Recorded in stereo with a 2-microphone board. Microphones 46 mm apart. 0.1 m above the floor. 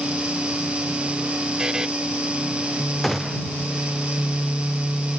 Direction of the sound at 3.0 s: 5° left (ahead or behind).